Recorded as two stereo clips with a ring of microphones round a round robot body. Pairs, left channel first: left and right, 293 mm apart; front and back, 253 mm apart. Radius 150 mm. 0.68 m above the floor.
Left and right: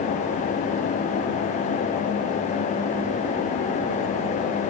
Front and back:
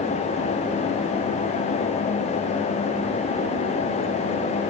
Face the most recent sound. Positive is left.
No sound to turn to.